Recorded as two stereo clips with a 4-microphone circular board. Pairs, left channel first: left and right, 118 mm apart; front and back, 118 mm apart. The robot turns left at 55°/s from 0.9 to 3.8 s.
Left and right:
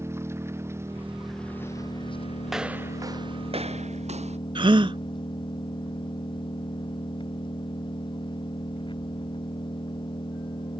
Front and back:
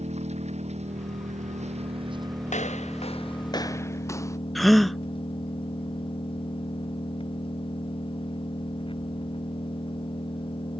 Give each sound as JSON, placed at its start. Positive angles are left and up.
{"t": 0.0, "sound": "an engine running", "azimuth_deg": -160}
{"t": 2.5, "sound": "footsteps", "azimuth_deg": 0}
{"t": 4.5, "sound": "a gasp", "azimuth_deg": -90}